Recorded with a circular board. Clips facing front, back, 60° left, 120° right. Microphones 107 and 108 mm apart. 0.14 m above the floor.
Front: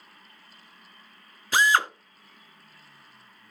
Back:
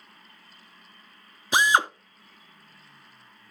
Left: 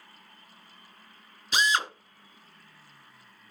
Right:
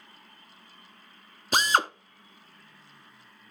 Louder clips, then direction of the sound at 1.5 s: Back 1 dB, right 3 dB; 115° right.